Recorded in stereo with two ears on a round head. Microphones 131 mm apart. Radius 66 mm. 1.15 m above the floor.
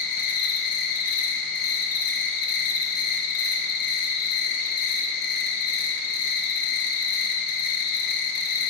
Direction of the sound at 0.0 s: 65° left (ahead or behind).